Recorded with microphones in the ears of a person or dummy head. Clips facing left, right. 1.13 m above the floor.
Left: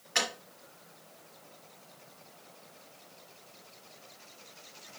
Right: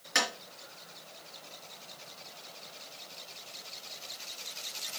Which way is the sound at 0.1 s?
65° right (ahead or behind).